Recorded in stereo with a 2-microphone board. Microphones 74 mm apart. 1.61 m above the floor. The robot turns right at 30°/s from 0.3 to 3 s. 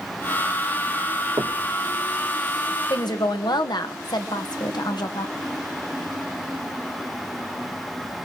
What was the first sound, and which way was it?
Knocking, 50° right (ahead or behind).